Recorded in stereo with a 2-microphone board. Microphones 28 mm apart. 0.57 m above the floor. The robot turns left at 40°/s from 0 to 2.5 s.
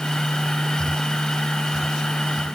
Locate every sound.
Only background noise.